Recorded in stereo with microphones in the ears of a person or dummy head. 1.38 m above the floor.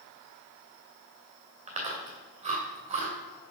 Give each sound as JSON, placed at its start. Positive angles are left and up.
{"t": 1.7, "sound": "chewing", "side_deg": -35, "distance_m": 2.5}